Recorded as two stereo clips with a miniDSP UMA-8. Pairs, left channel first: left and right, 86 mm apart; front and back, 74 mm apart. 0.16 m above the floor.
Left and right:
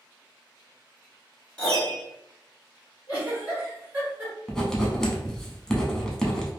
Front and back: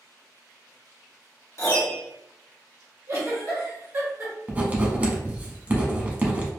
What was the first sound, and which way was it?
A piano, 20° left.